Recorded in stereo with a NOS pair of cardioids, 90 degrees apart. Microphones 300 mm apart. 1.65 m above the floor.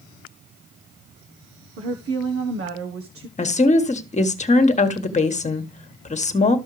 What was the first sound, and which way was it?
A woman speaking, 50° right.